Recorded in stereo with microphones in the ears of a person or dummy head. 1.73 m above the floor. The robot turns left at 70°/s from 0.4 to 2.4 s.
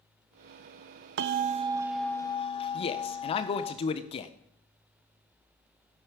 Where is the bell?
120° right, 0.7 m; by 3.7 s 155° left, 0.7 m.